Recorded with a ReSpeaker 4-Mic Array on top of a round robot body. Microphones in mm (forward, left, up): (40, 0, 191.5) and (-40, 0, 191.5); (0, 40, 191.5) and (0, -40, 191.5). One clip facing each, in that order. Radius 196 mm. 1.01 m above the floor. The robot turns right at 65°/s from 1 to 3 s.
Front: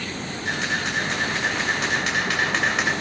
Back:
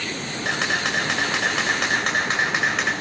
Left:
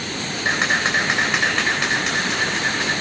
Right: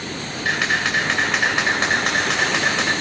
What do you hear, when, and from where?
0.5 s a camera shutter: 160° left, 2.5 m; by 2.9 s 75° right, 2.5 m